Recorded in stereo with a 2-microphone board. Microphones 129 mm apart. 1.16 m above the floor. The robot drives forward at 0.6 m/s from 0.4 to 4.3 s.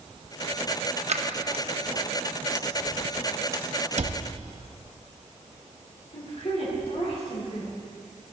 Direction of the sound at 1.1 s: 60° right (ahead or behind).